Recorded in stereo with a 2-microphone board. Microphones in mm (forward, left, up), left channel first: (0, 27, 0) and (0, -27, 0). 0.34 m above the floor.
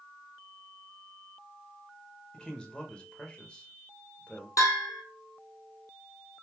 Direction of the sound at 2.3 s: 20° left (ahead or behind).